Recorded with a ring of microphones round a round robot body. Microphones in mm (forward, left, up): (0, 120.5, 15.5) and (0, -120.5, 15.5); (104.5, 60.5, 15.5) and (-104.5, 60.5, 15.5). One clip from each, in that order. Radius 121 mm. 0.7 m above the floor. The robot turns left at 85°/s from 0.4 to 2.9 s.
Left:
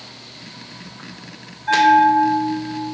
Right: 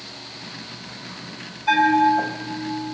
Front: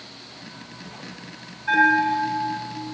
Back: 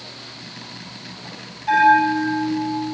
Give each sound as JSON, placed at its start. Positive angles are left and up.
{"t": 1.7, "sound": "a bell", "azimuth_deg": -85, "distance_m": 4.0}